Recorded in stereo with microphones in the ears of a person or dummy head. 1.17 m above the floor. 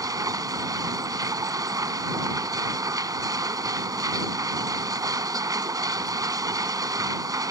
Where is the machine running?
20° right (ahead or behind).